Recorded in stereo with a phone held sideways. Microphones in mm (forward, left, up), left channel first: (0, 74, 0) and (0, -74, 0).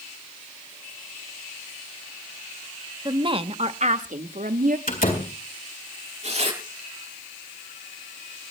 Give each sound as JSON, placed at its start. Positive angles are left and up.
{"t": 3.0, "sound": "a woman speaking", "side_deg": -30, "distance_m": 1.0}
{"t": 4.9, "sound": "a door slam", "side_deg": 75, "distance_m": 4.0}
{"t": 6.2, "sound": "tearing paper", "side_deg": -45, "distance_m": 9.5}